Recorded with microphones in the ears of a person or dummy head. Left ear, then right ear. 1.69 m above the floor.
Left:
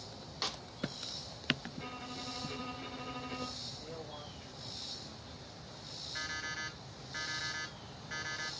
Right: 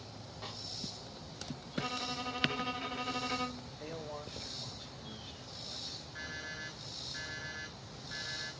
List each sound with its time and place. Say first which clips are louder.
0.4 s a snare drum: left 7 dB; 65° left (ahead or behind), 0.8 m
1.7 s a violin: right 7 dB; 80° right, 1.4 m
3.8 s a man speaking: right 2 dB; 70° right (ahead or behind), 5 m
6.2 s an alarm clock: left 6 dB; 30° left (ahead or behind), 3 m